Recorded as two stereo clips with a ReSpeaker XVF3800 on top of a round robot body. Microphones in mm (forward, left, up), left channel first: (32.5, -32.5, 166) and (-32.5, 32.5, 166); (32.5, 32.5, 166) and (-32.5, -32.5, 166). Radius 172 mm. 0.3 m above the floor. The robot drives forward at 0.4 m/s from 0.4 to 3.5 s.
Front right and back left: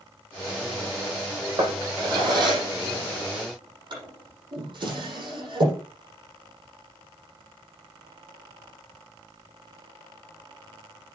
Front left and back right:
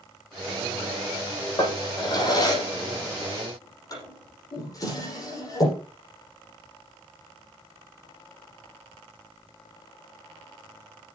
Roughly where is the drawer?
Left.